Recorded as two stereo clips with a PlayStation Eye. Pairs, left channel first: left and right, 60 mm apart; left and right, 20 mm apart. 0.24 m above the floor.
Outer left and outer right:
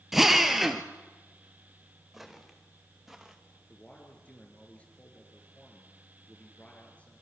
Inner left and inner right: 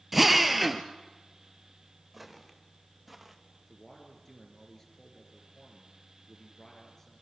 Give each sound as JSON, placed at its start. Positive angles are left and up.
{"t": 0.1, "sound": "a drill", "side_deg": -5, "distance_m": 2.0}
{"t": 2.1, "sound": "footsteps", "side_deg": -5, "distance_m": 5.5}
{"t": 3.6, "sound": "a man speaking", "side_deg": 20, "distance_m": 5.0}